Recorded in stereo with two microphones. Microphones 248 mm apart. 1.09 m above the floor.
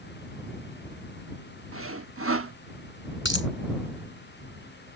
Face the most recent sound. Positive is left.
turn(degrees=45)  # may be behind; listen again after turning